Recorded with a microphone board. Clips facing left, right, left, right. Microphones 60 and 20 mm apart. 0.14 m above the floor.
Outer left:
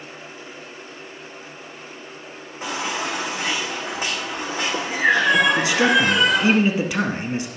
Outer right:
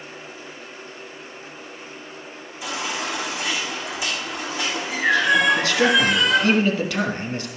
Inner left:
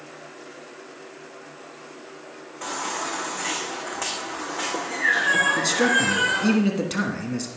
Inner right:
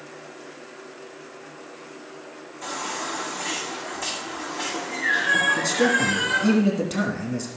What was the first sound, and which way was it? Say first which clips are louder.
A baby crying: outer left 2 dB, inner left 1 dB; 45° left (ahead or behind).